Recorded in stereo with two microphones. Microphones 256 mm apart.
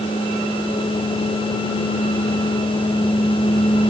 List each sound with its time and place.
Only background noise.